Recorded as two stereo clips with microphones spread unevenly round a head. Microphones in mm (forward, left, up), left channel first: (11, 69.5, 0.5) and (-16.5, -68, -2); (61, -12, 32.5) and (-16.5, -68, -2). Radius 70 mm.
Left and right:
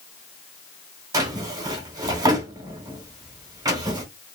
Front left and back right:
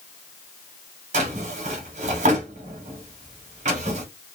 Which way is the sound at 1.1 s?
160° right.